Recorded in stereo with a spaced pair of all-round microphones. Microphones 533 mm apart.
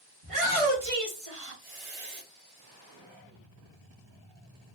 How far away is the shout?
About 1.7 m.